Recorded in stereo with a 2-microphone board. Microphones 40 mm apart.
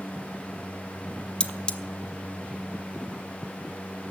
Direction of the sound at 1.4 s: 25° left (ahead or behind).